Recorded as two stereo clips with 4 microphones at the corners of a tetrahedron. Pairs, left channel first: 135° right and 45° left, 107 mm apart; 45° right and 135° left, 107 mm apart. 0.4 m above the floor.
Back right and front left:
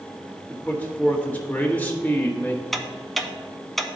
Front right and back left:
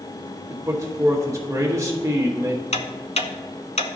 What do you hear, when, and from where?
0.5 s a man speaking: 165° left, 1.4 m
2.7 s ticking: 45° right, 0.7 m